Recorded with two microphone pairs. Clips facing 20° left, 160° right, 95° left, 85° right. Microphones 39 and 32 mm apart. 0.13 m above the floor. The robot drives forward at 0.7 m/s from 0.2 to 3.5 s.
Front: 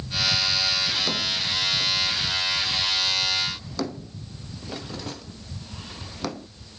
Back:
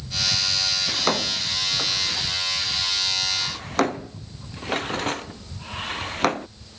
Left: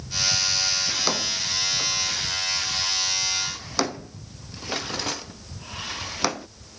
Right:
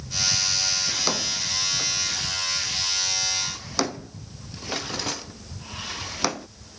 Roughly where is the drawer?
Behind.